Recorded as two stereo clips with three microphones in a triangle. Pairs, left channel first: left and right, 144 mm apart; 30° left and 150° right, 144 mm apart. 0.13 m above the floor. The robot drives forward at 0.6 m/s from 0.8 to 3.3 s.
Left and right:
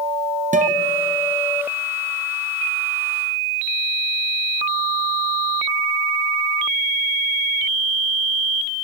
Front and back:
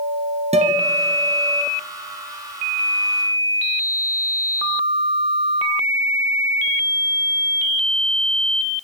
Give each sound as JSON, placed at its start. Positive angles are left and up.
{"t": 0.5, "sound": "a guitar", "azimuth_deg": -110, "distance_m": 1.6}